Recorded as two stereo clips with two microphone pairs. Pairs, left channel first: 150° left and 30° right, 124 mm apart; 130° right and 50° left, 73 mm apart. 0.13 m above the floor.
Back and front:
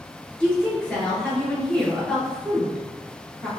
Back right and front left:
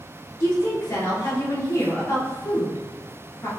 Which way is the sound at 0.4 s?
130° right.